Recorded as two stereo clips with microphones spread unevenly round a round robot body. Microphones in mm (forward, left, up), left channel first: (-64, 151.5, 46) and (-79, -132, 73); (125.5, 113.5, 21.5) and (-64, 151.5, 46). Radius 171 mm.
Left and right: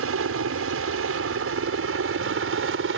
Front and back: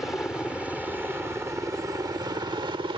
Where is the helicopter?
95° right; by 3.0 s 125° right.